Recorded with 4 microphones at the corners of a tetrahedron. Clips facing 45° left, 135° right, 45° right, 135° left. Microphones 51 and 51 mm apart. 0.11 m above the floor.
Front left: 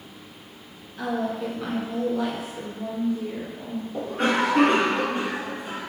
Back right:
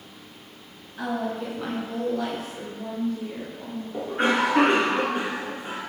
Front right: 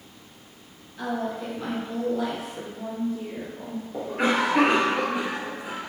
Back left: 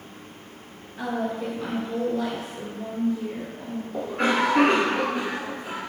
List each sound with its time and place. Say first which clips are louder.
1.0 s a woman speaking: front left 1 dB, back left 1 dB; 175° right, 1.4 m; by 3.8 s 5° right, 1.9 m
3.9 s a cough: back right 1 dB, even; 115° right, 1.3 m